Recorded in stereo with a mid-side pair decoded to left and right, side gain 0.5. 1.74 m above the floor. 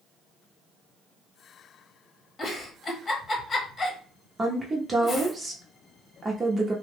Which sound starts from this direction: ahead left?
A giggle, at 2.4 s.